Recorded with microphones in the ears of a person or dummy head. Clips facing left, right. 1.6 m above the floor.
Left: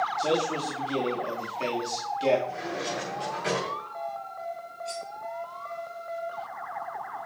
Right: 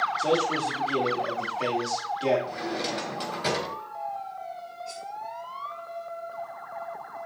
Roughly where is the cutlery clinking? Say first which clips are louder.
Left 3 dB; left.